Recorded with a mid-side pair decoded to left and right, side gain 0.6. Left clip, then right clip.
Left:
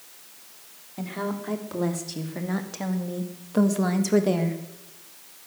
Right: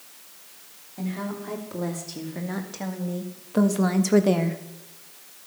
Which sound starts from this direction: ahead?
A woman speaking, at 1.0 s.